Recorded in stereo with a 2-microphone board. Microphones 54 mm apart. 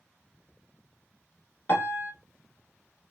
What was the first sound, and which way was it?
A piano, 35° left (ahead or behind).